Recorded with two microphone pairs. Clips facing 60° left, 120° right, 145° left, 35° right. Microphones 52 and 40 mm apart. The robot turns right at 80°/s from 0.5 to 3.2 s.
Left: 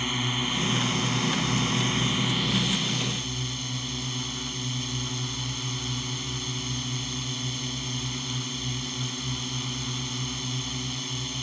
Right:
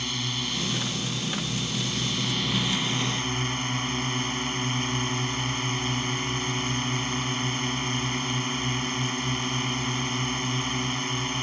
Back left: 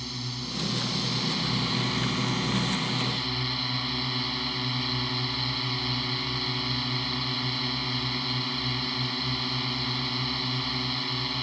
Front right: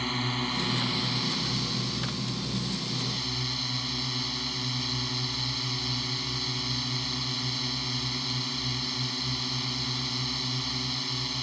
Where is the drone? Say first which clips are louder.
Left 3 dB, front right 6 dB; 5° right; by 11.4 s 150° right.